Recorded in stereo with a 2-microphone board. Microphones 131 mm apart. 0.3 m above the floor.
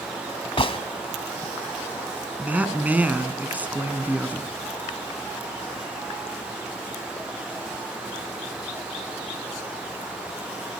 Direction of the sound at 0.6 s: 45° left (ahead or behind).